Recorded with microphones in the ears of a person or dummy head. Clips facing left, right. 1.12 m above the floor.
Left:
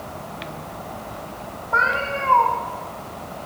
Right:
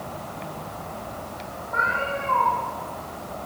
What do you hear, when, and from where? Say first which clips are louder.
1.7 s a cat meowing: left 3 dB; 85° left, 4.5 m